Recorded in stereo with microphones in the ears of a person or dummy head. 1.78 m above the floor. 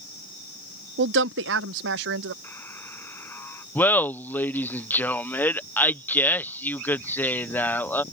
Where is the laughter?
10° left (ahead or behind).